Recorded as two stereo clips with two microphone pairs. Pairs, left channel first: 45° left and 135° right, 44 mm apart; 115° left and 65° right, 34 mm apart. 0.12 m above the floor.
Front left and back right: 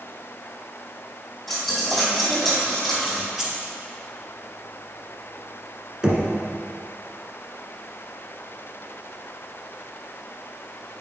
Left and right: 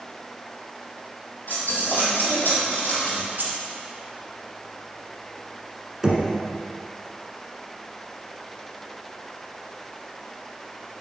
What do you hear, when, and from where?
1.5 s a dropped coin: 140° left, 2.5 m
3.4 s keys jangling: 55° right, 2.0 m
6.0 s knocking: 90° right, 1.2 m